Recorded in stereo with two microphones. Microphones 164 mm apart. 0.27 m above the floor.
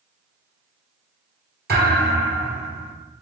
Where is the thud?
85° right, 1.8 m.